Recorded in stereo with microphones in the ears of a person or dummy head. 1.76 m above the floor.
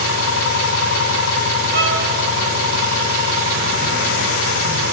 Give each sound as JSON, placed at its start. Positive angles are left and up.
{"t": 0.0, "sound": "an engine running", "side_deg": 60, "distance_m": 6.5}
{"t": 1.7, "sound": "a violin", "side_deg": -60, "distance_m": 4.5}